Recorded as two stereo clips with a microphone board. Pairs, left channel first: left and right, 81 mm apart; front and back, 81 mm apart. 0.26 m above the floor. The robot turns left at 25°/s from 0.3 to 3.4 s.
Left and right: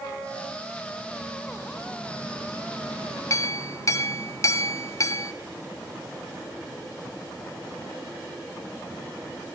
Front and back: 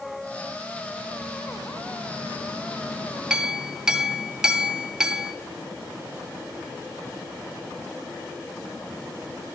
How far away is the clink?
About 0.7 m.